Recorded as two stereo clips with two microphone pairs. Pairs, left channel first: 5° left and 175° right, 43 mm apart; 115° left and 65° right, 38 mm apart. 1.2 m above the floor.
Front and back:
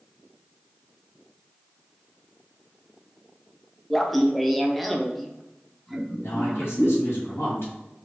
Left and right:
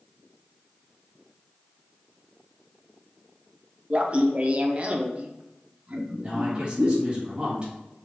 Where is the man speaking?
Straight ahead, 1.9 m.